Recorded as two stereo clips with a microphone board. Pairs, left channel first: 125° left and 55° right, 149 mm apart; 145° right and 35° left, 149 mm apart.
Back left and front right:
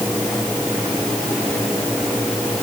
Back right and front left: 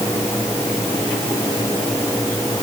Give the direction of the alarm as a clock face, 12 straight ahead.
I don't hear an alarm.